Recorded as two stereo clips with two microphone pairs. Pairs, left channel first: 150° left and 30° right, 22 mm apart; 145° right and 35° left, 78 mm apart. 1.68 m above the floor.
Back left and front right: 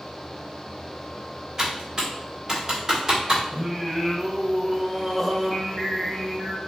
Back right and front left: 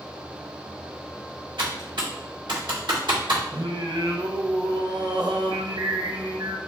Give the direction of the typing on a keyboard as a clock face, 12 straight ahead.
11 o'clock.